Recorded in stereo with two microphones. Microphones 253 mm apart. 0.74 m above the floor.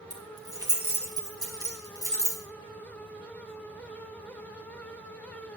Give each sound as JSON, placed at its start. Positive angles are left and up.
{"t": 0.1, "sound": "keys jangling", "side_deg": -15, "distance_m": 4.0}